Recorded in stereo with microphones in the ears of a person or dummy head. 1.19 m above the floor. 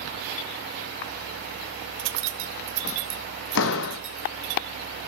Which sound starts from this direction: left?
A door slam, at 3.5 s.